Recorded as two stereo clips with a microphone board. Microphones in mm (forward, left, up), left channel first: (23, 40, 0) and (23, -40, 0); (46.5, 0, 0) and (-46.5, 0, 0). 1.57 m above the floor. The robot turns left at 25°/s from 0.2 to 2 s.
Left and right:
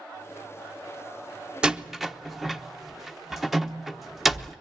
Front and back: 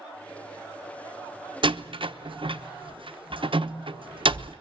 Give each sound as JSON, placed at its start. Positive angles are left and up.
{"t": 1.6, "sound": "a door slam", "azimuth_deg": -165, "distance_m": 1.0}